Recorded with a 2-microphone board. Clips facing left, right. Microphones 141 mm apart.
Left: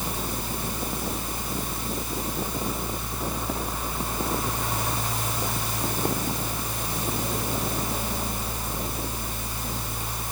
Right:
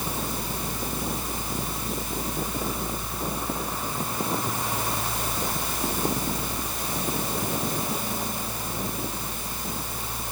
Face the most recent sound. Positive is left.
No sound to turn to.